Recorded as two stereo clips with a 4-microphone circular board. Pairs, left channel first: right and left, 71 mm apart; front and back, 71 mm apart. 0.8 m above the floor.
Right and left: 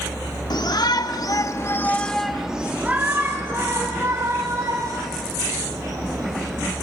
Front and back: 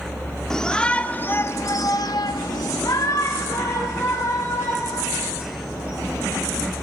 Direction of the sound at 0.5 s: 85° right.